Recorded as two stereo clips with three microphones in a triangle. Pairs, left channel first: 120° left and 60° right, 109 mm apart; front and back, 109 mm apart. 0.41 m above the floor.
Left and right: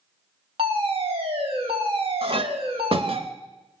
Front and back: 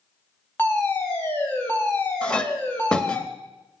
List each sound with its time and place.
0.6 s a fire alarm: 70° right, 4 m
2.2 s a clink: 80° right, 1.0 m